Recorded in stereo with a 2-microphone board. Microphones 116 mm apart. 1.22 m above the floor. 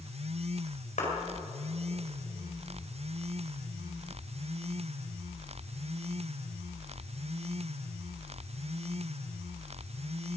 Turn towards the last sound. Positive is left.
turn(degrees=85)